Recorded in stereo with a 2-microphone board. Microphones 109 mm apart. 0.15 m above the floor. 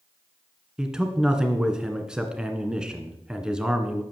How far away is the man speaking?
About 1.8 m.